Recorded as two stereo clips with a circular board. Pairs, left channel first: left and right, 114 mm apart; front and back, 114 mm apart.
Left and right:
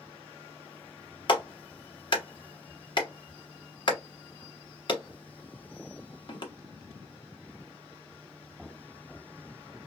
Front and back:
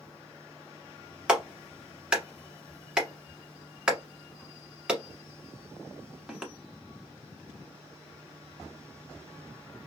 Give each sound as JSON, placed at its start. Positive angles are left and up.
{"t": 1.3, "sound": "a clap", "azimuth_deg": 100, "distance_m": 1.1}